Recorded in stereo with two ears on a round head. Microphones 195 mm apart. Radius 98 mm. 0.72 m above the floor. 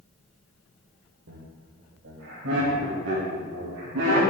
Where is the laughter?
60° right (ahead or behind), 2.5 m; by 4.2 s 80° right, 5 m.